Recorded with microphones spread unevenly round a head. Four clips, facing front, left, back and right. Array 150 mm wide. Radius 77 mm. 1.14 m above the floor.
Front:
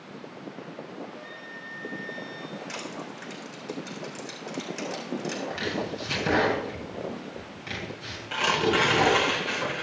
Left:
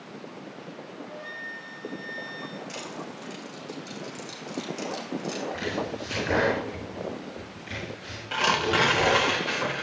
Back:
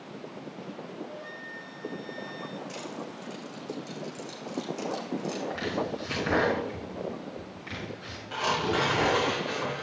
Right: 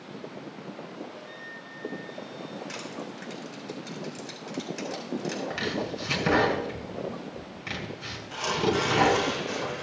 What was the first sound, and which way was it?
A flute, 105° left.